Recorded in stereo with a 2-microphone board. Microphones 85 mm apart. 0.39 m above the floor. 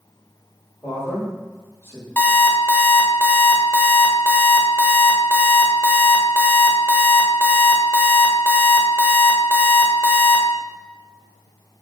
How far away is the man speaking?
About 1.7 m.